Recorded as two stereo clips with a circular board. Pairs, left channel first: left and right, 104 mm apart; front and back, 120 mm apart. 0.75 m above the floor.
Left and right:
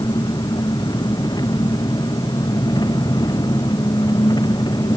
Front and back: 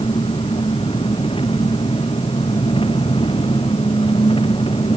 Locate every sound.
0.0 s an engine running: 40° left